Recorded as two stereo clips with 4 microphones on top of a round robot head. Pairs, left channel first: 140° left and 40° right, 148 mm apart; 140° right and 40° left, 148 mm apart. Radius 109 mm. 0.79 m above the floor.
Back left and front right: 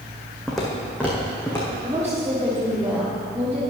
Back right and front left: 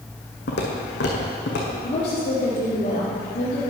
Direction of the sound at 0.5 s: 130° right.